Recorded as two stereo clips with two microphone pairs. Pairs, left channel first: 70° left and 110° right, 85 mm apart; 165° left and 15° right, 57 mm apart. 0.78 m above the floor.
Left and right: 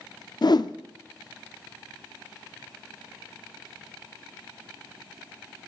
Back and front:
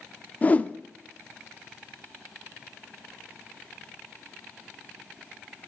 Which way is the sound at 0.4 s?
100° left.